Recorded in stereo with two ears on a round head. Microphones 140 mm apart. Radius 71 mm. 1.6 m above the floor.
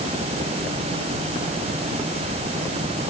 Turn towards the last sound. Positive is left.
No sound to turn to.